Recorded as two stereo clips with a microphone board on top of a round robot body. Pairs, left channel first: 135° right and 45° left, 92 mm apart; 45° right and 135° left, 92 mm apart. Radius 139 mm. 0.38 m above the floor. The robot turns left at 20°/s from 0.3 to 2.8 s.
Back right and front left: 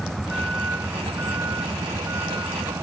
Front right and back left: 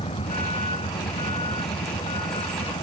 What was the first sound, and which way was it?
A vehicle, 45° right.